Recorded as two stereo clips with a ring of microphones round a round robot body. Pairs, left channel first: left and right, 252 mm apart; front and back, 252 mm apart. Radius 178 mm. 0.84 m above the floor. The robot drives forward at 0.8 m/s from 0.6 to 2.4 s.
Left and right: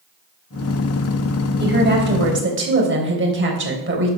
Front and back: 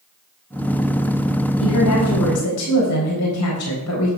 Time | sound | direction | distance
1.6 | a woman speaking | 40° right | 4 m